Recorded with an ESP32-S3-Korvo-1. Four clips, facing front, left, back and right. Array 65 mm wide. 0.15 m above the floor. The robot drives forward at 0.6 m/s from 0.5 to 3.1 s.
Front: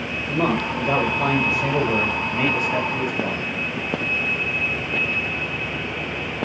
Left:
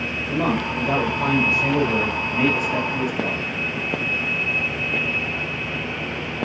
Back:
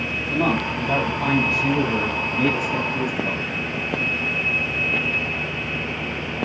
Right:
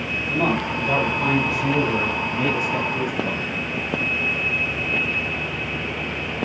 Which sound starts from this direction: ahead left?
A man speaking, at 0.3 s.